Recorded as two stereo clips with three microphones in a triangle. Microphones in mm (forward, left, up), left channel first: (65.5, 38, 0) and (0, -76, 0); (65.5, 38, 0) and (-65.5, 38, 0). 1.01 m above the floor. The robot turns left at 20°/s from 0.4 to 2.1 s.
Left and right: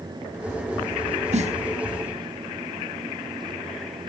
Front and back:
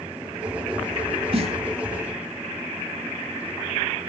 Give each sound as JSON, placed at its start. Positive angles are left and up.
{"t": 1.3, "sound": "a snare drum", "azimuth_deg": -140, "distance_m": 1.2}